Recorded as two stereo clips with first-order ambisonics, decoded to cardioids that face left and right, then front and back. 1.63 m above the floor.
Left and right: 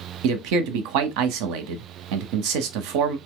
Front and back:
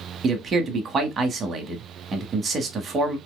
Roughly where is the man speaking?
Right.